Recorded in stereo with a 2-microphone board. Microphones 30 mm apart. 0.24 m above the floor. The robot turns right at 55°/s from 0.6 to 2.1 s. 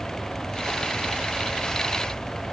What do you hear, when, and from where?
Only background noise.